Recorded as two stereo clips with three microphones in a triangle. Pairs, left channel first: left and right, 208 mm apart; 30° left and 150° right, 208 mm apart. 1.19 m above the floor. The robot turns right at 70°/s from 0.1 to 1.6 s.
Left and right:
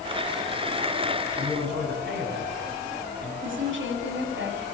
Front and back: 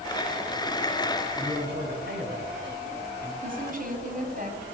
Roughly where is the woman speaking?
Right.